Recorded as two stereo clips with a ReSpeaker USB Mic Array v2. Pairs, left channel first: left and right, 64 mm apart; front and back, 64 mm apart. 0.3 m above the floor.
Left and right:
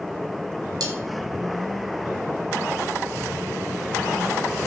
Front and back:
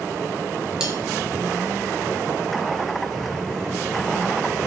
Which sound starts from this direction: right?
Cutlery clinking, at 0.8 s.